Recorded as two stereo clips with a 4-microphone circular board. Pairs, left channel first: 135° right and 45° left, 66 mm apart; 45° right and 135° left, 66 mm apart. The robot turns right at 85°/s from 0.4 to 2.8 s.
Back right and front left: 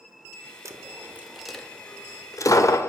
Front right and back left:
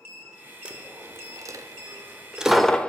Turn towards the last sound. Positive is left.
turn(degrees=-115)